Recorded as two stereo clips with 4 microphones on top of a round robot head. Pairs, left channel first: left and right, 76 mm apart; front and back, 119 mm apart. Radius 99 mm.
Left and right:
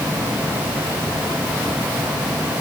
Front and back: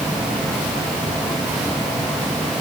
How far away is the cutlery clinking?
No cutlery clinking in this recording.